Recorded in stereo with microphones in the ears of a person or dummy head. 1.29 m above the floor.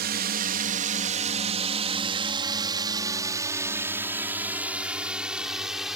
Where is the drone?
55° right (ahead or behind); by 6.0 s 5° right (ahead or behind).